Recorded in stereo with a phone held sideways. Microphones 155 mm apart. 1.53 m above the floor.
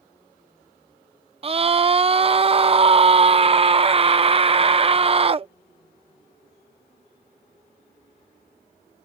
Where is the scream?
35° right (ahead or behind).